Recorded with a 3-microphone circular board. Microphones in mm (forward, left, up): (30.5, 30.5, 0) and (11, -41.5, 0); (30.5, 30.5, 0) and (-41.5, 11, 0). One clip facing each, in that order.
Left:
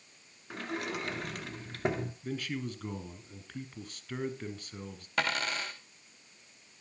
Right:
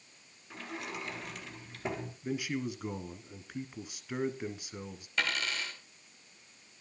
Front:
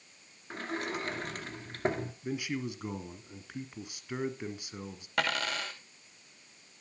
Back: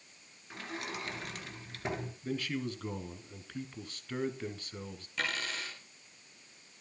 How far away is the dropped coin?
About 3.5 m.